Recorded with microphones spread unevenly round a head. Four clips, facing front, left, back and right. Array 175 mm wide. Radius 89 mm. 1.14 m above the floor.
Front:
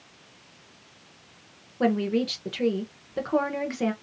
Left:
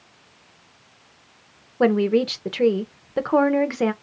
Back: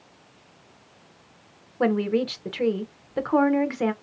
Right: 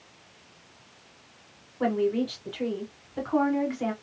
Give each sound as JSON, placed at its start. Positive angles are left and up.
{"t": 1.8, "sound": "a woman speaking", "azimuth_deg": 85, "distance_m": 0.9}